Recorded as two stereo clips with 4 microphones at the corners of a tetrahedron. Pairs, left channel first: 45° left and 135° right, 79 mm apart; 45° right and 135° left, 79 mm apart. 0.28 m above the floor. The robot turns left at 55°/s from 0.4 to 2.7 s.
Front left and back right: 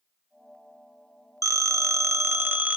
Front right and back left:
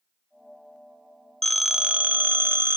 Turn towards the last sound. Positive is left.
turn(degrees=165)